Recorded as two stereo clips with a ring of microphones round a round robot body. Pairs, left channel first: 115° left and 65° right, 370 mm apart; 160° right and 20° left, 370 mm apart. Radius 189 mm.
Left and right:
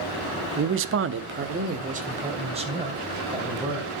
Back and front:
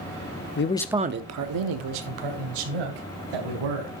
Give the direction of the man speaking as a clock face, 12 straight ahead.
4 o'clock.